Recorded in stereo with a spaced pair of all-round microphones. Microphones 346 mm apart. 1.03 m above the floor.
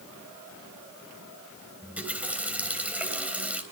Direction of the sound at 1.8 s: 5° right (ahead or behind).